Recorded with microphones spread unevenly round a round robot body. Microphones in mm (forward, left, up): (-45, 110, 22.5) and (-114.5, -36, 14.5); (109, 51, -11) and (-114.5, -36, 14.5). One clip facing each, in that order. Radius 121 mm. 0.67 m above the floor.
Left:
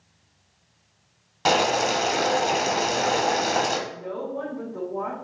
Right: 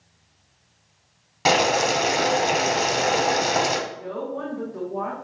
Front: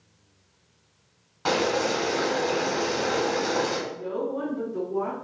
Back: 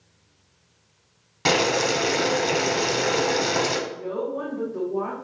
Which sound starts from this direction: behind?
Boiling, at 1.4 s.